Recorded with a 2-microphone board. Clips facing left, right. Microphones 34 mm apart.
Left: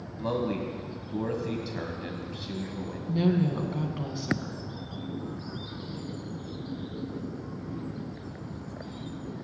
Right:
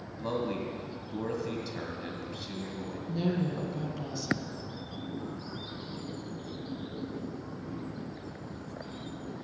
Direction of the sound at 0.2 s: 10° left (ahead or behind).